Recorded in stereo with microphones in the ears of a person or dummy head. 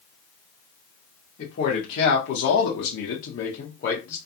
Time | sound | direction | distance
1.4 | a man speaking | 45° left (ahead or behind) | 1.0 m